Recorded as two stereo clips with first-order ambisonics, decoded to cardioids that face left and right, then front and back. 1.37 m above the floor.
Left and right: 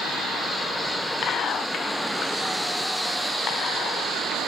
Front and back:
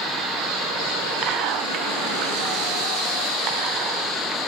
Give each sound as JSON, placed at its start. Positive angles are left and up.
{"t": 1.2, "sound": "whispering", "azimuth_deg": 145, "distance_m": 0.5}